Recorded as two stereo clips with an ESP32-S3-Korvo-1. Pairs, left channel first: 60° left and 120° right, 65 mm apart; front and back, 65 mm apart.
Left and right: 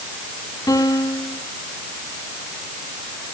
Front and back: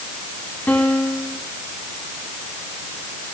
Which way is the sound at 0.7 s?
65° left.